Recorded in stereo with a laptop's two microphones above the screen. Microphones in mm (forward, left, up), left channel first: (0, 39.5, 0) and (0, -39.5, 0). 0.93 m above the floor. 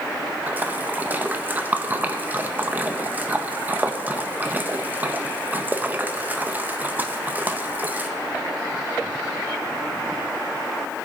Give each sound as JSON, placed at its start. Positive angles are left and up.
{"t": 0.5, "sound": "a splash", "side_deg": -20, "distance_m": 0.7}